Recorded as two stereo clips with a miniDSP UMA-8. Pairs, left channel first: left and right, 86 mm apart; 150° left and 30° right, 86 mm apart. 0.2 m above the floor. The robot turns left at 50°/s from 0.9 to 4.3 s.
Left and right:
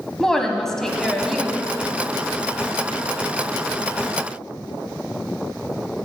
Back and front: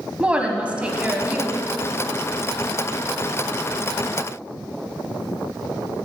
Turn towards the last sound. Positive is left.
turn(degrees=-155)